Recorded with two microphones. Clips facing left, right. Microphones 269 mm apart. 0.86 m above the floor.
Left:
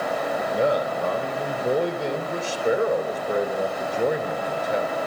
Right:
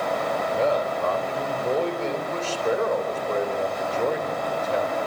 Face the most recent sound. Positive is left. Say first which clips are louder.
# left 1 dB
turn(degrees=15)  # may be behind; listen again after turning